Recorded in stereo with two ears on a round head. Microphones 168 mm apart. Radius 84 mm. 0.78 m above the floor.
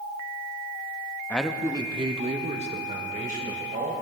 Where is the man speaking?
10° left (ahead or behind), 0.7 m; by 3.9 s 45° right (ahead or behind), 3.5 m.